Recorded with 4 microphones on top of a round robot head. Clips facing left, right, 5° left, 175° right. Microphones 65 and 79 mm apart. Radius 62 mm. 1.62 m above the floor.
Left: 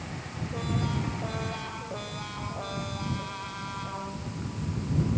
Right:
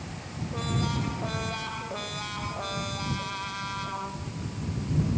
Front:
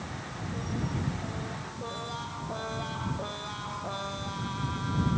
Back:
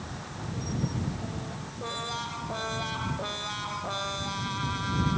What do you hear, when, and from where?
Only background noise.